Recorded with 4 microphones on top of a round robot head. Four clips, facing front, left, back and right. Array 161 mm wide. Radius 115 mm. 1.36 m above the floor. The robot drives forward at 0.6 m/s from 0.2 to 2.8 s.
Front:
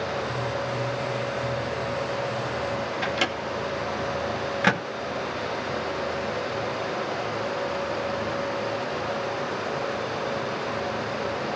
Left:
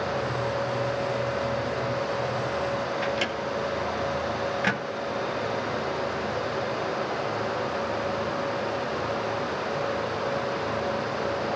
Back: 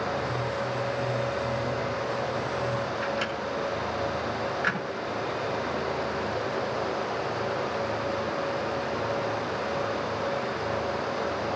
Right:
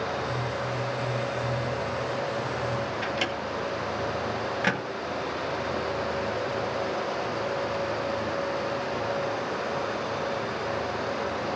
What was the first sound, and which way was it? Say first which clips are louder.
A microwave: left 2 dB, front 2 dB; 5° right.